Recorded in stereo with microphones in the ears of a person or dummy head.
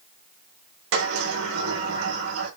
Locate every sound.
0.9 s a sliding door: 90° right, 5 m